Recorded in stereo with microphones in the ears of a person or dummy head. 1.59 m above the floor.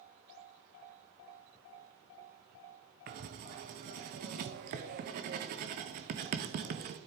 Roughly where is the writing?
Right.